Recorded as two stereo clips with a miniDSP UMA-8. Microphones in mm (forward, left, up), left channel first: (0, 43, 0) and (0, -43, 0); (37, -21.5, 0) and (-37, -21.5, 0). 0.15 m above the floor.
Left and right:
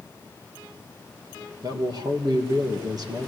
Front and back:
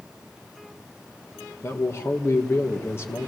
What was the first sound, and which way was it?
A man speaking, 55° right.